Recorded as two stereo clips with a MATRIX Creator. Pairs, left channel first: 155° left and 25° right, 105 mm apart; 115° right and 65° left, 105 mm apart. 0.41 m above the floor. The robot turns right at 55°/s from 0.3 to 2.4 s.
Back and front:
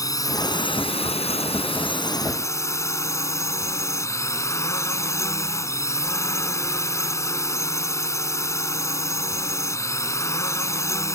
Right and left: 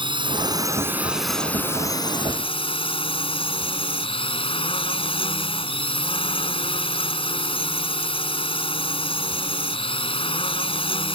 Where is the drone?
105° left; by 11.2 s 140° right.